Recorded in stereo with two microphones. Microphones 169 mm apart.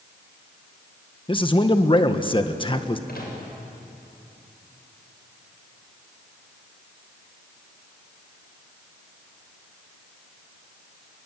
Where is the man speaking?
30° left (ahead or behind), 1.5 m.